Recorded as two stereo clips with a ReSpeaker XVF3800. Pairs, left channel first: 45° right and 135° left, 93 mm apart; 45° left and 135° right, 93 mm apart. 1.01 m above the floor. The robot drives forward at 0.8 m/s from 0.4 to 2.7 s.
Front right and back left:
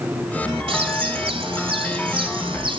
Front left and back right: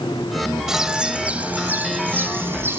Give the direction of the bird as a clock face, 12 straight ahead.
7 o'clock.